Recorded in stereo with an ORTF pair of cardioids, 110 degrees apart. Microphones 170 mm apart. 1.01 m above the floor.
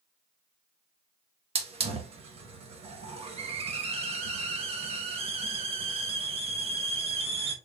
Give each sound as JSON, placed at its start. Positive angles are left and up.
{"t": 1.6, "sound": "a hiss", "azimuth_deg": -35, "distance_m": 0.8}